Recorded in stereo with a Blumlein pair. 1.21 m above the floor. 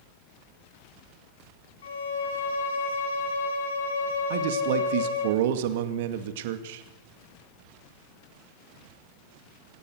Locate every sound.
1.8 s a violin: 60° left, 3 m
4.3 s a man speaking: 55° right, 2.5 m